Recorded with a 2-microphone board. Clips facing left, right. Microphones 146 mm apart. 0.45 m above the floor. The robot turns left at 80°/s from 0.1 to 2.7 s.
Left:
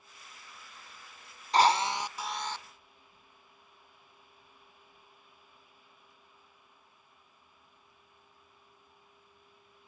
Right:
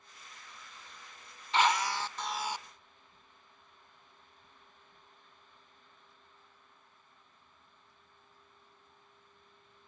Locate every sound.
1.5 s a drill: 60° left, 0.6 m; by 2.6 s 25° right, 0.6 m